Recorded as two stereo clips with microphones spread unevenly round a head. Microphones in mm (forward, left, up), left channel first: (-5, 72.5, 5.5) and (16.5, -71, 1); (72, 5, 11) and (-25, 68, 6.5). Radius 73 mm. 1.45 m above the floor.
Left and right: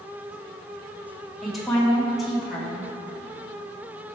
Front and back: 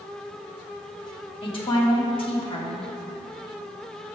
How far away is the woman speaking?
About 1.9 m.